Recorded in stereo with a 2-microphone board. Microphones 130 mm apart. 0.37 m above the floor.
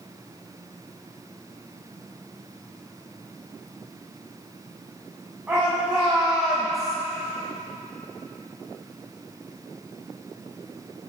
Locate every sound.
5.5 s a shout: 15° right (ahead or behind), 3.5 m; by 7.0 s 5° left (ahead or behind), 1.6 m